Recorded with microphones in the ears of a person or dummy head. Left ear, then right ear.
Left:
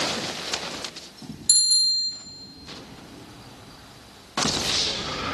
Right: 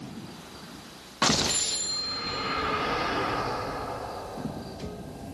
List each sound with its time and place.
1.5 s a bicycle bell: 60° left (ahead or behind), 3 m